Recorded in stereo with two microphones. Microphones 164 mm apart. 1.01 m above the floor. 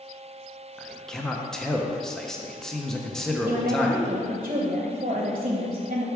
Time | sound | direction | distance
0.8 | a man speaking | 5° left (ahead or behind) | 0.7 m
3.5 | a woman speaking | 45° right (ahead or behind) | 0.9 m